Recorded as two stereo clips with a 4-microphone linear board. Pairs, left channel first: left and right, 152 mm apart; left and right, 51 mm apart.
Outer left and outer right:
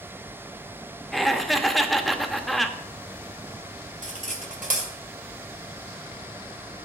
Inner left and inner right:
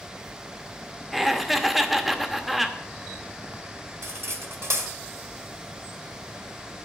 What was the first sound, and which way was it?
Laughter, centre (ahead or behind).